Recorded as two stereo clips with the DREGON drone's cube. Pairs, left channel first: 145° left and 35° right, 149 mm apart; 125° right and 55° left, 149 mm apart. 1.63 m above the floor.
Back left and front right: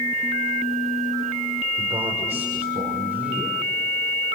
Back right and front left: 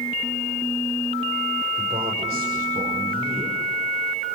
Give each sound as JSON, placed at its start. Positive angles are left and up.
{"t": 1.8, "sound": "a man speaking", "azimuth_deg": 10, "distance_m": 5.5}